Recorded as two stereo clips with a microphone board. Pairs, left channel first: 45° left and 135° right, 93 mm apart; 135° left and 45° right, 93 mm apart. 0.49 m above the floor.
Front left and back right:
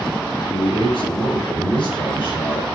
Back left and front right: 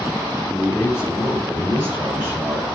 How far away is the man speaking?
About 5.5 m.